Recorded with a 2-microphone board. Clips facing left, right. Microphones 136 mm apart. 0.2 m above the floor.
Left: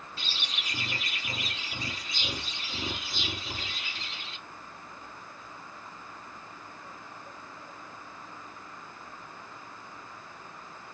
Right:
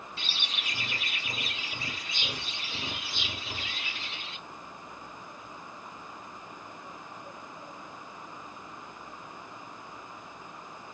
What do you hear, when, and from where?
0.2 s a bird: 40° left (ahead or behind), 3.5 m